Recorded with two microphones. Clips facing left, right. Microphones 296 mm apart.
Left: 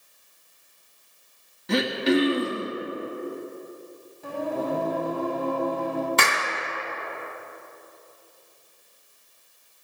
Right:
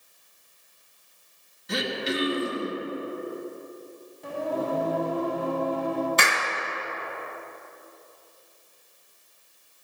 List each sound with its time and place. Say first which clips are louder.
1.7 s throat clearing: left 8 dB; 70° left (ahead or behind), 1.6 m
4.2 s singing: left 1 dB; 5° left (ahead or behind), 4 m
6.2 s a clap: left 1 dB; 65° left (ahead or behind), 2 m